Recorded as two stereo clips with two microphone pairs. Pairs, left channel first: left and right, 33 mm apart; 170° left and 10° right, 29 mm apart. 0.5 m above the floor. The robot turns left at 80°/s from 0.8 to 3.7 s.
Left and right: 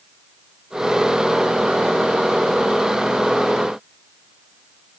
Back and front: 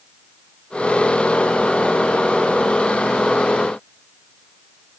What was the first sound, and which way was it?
Only background noise.